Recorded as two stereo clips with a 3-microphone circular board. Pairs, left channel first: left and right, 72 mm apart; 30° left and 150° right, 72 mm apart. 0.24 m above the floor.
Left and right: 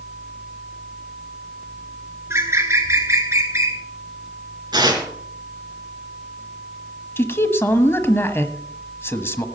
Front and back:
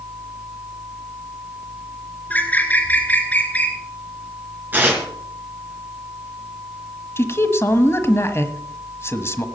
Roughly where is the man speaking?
Ahead left.